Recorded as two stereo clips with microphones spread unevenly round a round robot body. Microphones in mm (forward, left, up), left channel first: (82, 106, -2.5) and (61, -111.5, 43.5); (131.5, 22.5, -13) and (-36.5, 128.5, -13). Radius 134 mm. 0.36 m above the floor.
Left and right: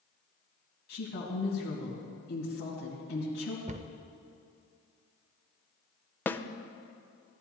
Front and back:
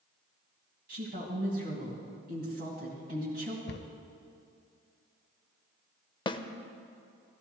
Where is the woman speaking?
120° left, 2.5 m.